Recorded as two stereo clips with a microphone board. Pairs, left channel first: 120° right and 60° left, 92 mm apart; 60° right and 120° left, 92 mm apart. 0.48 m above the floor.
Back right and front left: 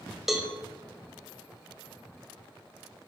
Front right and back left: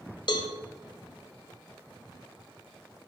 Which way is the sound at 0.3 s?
25° right.